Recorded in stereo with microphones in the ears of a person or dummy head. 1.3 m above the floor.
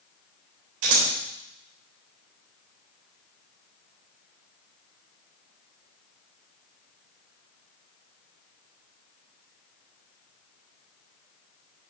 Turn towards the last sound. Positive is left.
turn(degrees=-70)  # may be behind; listen again after turning